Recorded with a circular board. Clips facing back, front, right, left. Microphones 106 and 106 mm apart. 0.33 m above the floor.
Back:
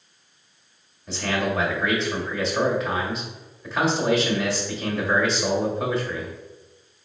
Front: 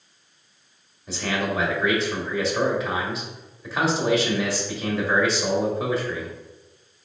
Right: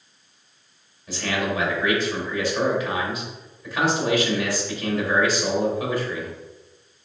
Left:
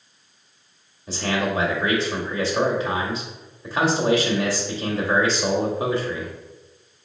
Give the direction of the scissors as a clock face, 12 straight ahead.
I don't hear scissors.